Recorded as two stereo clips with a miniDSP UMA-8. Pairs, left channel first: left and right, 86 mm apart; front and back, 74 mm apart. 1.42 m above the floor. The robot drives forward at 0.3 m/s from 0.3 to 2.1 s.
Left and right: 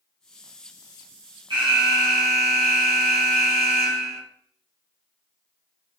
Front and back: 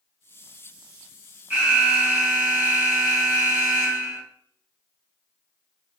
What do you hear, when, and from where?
1.5 s an alarm: 110° right, 1.4 m; by 4.2 s 115° right, 1.5 m